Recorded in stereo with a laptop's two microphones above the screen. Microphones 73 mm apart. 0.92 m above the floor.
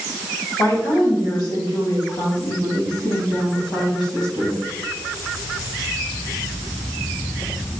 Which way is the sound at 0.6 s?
55° left (ahead or behind).